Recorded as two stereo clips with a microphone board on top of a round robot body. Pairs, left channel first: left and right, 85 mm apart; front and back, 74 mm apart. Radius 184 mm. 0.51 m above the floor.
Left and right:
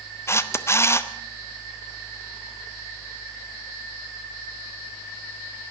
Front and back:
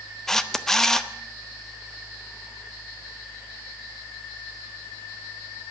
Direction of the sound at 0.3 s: 80° left.